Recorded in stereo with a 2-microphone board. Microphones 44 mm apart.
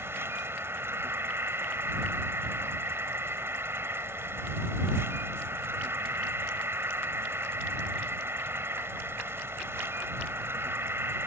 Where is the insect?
70° right (ahead or behind).